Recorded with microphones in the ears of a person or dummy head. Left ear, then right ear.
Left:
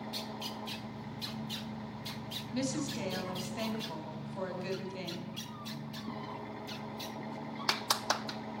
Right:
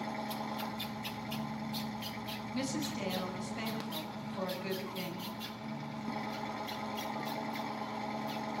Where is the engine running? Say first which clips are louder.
Right 2 dB; 50° right (ahead or behind), 1.9 m.